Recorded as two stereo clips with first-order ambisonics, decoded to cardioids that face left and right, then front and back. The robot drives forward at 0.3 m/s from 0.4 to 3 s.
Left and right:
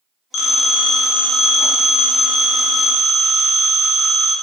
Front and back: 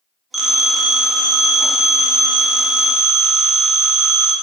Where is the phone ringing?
105° left, 0.5 m; by 4.3 s 160° left, 1.0 m.